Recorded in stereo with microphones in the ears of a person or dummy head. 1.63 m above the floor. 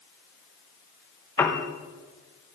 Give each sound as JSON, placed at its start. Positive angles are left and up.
{"t": 1.4, "sound": "a piano", "side_deg": 10, "distance_m": 1.0}